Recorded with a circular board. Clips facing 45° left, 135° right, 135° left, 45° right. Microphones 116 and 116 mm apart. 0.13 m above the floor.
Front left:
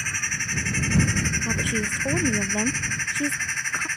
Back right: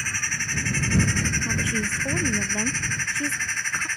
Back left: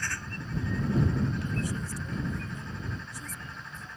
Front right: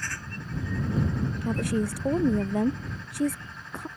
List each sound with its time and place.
1.4 s a woman speaking: 30° right